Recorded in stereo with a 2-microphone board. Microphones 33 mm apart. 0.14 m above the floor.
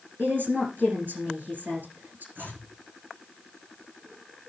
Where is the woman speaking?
70° right (ahead or behind), 6.5 m.